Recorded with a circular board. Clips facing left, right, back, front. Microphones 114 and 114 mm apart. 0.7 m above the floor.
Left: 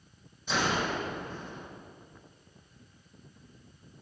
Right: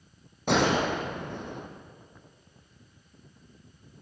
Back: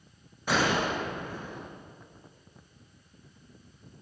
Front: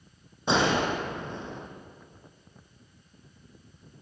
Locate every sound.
0.5 s a gunshot: 65° right, 4.5 m